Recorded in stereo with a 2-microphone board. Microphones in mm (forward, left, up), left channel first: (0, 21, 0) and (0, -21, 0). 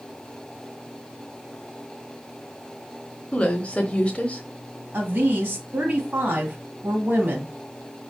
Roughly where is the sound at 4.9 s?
Right.